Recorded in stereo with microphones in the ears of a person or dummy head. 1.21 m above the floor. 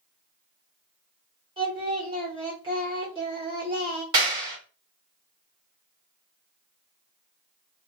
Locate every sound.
1.6 s singing: 25° right (ahead or behind), 1.4 m
4.1 s a clap: 25° right (ahead or behind), 1.6 m